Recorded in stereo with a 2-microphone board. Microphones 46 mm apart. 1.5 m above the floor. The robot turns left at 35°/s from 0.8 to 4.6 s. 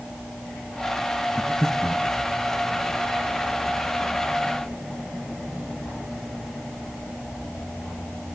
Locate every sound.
1.4 s breathing: 5° left (ahead or behind), 0.7 m; by 2.1 s 20° right (ahead or behind), 0.7 m